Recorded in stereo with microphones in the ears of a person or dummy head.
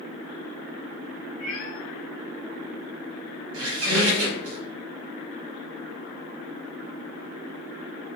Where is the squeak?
80° right, 0.7 m.